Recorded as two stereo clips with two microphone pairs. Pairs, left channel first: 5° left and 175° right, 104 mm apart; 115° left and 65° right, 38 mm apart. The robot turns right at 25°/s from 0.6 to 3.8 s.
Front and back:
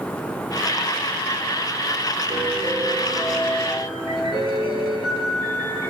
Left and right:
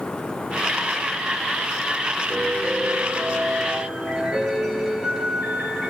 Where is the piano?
175° left, 2 m; by 5.9 s 145° right, 2 m.